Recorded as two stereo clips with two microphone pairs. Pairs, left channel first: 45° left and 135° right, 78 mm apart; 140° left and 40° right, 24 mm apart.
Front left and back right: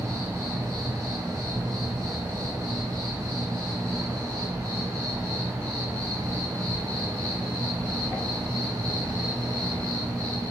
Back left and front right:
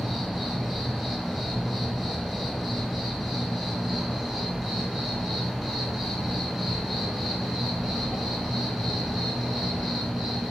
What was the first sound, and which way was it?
An insect, 115° right.